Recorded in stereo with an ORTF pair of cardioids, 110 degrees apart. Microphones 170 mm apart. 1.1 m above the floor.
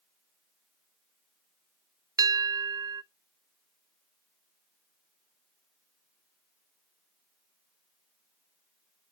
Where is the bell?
20° right, 0.6 m.